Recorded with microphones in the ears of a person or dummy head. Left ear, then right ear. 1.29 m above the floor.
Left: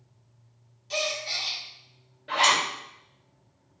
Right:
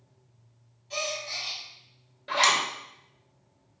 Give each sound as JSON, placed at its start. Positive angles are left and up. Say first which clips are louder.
{"t": 0.9, "sound": "a gasp", "louder": "left 3 dB", "side_deg": 40, "distance_m": 0.7}
{"t": 2.3, "sound": "a zipper", "louder": "left 1 dB", "side_deg": -25, "distance_m": 0.7}